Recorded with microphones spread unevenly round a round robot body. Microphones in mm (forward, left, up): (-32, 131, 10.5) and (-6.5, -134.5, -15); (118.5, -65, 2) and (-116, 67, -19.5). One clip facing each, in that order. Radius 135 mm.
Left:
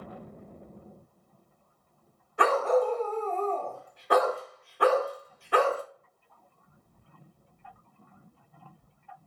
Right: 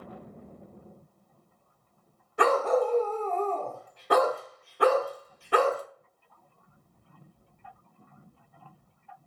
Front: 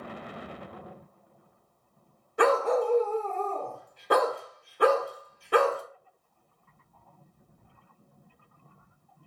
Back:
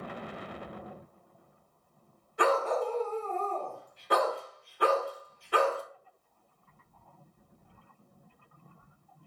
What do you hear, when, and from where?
2.4 s a dog barking: 75° right, 0.9 m